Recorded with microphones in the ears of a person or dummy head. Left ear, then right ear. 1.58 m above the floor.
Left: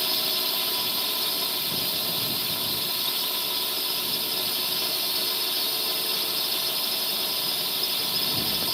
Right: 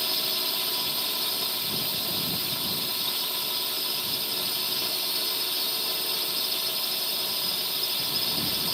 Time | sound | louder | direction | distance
0.0 | a drone | left 2 dB | centre (ahead or behind) | ?